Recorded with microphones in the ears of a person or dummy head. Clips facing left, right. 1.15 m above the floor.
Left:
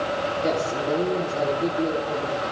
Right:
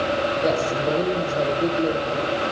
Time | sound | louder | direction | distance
0.4 | a man speaking | right 1 dB | 40° right (ahead or behind) | 4 m